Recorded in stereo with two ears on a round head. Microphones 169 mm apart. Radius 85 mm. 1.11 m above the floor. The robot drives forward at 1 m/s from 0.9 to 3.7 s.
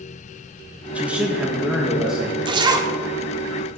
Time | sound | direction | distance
0.9 | a man speaking | 5° right (ahead or behind) | 1.0 m
2.5 | a zipper | 25° right (ahead or behind) | 0.7 m